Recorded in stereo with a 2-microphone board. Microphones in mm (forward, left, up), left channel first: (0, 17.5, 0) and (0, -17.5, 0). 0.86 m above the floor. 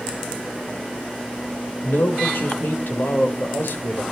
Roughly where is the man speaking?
Left.